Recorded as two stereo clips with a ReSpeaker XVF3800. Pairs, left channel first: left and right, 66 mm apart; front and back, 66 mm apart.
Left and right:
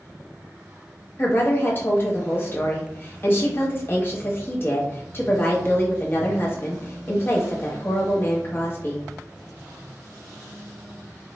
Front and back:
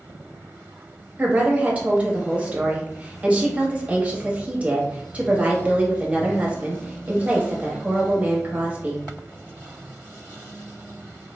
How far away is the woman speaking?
About 0.8 m.